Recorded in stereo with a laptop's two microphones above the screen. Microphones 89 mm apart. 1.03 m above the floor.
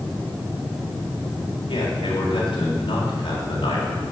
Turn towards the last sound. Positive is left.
turn(degrees=75)  # may be behind; listen again after turning